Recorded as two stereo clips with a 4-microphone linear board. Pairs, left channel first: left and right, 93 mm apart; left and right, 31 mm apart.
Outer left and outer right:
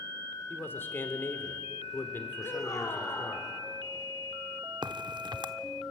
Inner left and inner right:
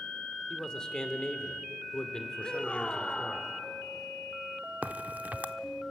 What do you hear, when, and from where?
0.5 s a man speaking: 25° left (ahead or behind), 2.5 m
2.4 s a shout: 45° left (ahead or behind), 3 m
4.8 s a crack: 60° right (ahead or behind), 0.7 m